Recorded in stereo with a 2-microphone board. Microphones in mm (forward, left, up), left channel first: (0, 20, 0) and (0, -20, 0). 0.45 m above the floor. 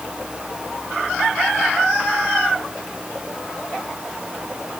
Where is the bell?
No bell in this recording.